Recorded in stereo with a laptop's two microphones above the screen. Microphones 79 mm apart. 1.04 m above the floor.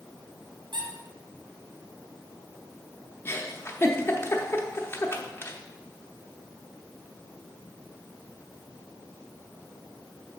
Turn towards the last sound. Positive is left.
turn(degrees=30)  # may be behind; listen again after turning